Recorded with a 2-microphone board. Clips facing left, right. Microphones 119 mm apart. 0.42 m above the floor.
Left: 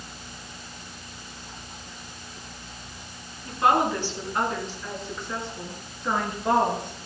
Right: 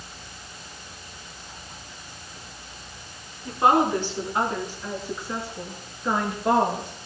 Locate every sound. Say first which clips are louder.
3.5 s a woman speaking: right 2 dB; 25° right (ahead or behind), 4 m; by 7.1 s centre (ahead or behind), 5.5 m